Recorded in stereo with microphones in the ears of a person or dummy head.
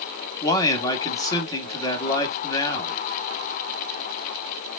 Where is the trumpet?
No trumpet in this recording.